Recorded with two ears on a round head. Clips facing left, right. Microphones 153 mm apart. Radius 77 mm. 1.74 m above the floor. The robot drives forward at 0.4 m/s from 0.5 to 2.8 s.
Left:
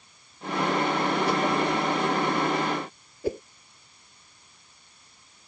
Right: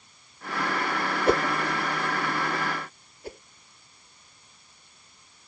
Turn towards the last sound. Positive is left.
turn(degrees=70)  # may be behind; listen again after turning